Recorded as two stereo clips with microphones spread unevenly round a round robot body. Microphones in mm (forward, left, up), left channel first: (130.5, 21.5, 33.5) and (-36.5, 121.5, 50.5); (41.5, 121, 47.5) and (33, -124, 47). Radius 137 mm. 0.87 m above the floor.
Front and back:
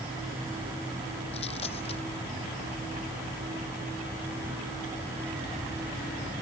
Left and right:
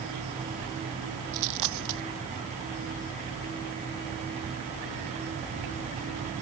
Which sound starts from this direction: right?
A dropped coin, at 1.3 s.